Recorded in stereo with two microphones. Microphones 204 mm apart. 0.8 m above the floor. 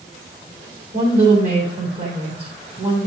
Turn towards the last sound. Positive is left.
turn(degrees=-50)  # may be behind; listen again after turning